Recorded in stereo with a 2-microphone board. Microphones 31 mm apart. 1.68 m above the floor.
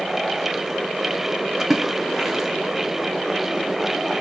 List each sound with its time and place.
1.6 s a splash: 10° right (ahead or behind), 0.6 m